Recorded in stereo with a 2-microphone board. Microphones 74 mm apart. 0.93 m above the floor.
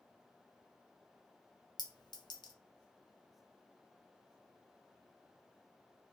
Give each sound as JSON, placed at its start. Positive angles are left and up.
{"t": 1.8, "sound": "a clink", "side_deg": 75, "distance_m": 0.5}